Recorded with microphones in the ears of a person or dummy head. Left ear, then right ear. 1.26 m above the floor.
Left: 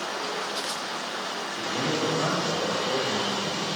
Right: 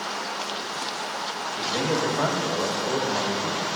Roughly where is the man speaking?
Right.